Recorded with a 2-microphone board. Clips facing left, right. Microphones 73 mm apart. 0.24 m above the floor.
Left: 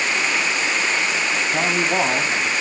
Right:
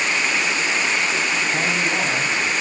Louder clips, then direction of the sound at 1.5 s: Left 1 dB; 15° left (ahead or behind).